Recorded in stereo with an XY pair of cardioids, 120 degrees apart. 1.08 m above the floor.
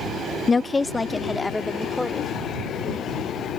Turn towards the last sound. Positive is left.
turn(degrees=5)